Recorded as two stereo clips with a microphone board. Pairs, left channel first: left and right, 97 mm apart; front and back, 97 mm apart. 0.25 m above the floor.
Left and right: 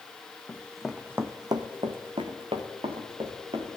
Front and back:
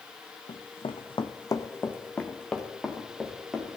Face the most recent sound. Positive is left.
turn(degrees=-95)